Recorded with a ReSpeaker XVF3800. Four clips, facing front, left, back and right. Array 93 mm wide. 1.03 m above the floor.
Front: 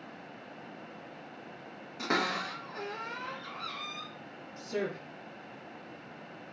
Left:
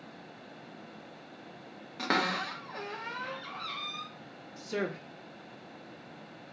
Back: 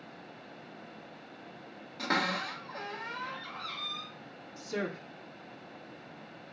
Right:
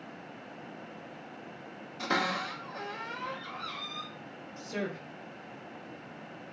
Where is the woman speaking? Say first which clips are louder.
Left 2 dB, front 1 dB; 95° left, 1.0 m.